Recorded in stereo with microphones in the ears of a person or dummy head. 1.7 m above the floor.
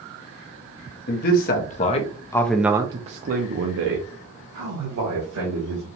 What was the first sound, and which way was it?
A man speaking, 55° left (ahead or behind).